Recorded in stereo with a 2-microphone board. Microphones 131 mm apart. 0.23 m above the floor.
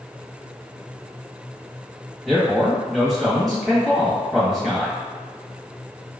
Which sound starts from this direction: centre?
A man speaking, at 2.2 s.